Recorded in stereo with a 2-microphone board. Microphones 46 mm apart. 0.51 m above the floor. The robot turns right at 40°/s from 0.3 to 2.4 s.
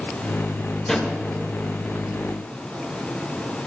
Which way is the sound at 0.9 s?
10° left (ahead or behind).